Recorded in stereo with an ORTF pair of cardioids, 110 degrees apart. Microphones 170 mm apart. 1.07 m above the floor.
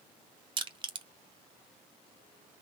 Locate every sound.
0.6 s crushing: 30° right, 0.9 m